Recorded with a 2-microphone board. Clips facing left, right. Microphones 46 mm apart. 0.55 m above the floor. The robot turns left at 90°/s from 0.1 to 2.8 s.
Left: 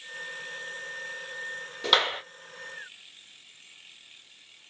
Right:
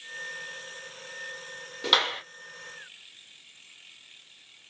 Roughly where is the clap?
Behind.